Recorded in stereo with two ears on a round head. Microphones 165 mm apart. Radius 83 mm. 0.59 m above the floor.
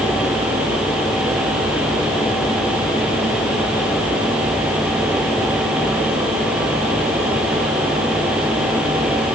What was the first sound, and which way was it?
Only background noise.